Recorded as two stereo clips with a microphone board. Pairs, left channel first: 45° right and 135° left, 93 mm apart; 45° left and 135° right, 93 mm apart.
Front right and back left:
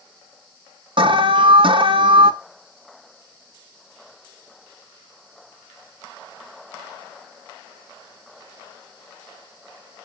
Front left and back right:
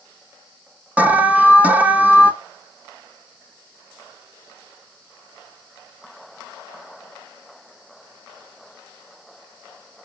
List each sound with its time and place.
1.0 s an alarm: 150° left, 0.9 m